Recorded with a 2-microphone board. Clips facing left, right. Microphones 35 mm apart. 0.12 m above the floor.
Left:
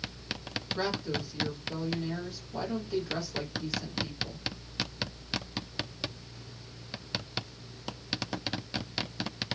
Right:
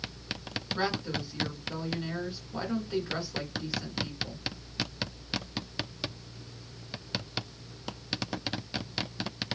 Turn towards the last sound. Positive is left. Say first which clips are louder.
# right 1 dB
turn(degrees=-25)  # may be behind; listen again after turning